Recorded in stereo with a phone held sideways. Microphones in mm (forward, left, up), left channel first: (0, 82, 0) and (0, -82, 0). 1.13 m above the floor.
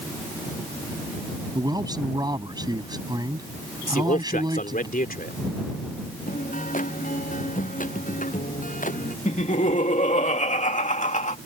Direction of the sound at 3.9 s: 60° left (ahead or behind).